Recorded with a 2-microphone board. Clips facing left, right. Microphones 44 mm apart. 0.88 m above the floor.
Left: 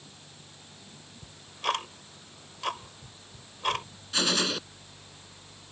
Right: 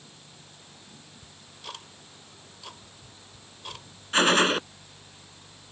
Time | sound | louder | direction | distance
1.2 | ticking | left 14 dB | 65° left (ahead or behind) | ?
4.1 | a gunshot | right 7 dB | 40° right (ahead or behind) | ?